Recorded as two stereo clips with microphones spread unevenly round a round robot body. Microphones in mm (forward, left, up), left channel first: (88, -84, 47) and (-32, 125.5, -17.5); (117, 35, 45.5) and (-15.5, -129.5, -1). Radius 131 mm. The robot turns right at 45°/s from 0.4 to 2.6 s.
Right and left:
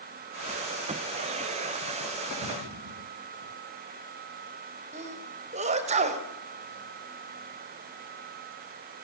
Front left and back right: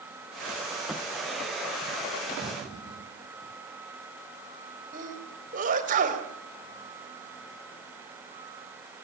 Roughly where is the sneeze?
Behind.